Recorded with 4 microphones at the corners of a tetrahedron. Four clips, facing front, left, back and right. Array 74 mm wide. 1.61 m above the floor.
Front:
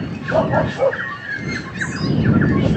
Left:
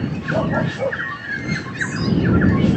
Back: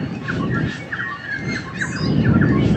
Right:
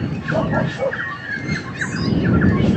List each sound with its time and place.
0.3 s a dog barking: 5° right; by 2.7 s 10° right